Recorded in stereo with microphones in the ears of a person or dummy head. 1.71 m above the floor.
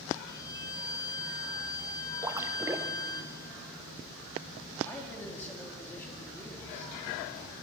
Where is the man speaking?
10° left (ahead or behind), 4 m.